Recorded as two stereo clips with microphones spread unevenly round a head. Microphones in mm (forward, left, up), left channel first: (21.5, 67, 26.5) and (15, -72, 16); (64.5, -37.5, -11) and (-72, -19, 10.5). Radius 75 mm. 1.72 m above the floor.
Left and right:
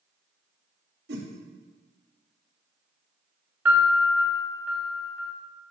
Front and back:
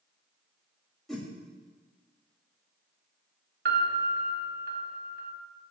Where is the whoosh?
100° right, 1.7 m.